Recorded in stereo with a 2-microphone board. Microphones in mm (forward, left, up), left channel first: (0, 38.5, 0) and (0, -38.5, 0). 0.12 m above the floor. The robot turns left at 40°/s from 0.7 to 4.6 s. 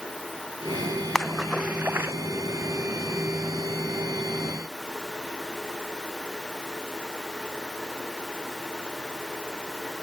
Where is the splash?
5° left (ahead or behind); by 2.1 s 35° right (ahead or behind).